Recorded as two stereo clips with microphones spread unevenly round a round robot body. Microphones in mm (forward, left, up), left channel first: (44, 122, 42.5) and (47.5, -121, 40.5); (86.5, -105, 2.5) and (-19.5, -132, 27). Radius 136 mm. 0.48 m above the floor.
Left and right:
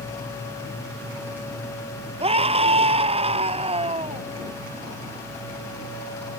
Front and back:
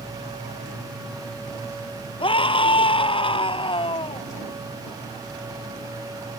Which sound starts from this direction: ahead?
A scream, at 2.2 s.